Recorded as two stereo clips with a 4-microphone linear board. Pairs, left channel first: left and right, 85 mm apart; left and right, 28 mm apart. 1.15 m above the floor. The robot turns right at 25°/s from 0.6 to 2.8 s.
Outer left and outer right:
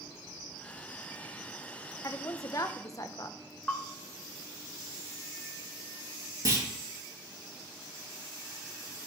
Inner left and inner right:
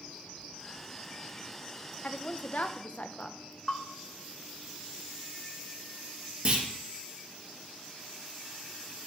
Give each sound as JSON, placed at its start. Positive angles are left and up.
{"t": 2.0, "sound": "a woman speaking", "side_deg": 45, "distance_m": 0.5}
{"t": 3.7, "sound": "a bell", "side_deg": 15, "distance_m": 0.6}
{"t": 6.5, "sound": "a clunk", "side_deg": -45, "distance_m": 1.5}